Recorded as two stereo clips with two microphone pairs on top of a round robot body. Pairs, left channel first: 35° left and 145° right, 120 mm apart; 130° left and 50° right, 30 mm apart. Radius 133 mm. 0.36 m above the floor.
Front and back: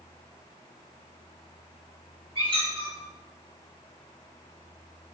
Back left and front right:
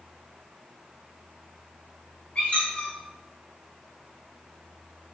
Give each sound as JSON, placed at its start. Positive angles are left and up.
{"t": 2.4, "sound": "a squeak", "azimuth_deg": 165, "distance_m": 1.4}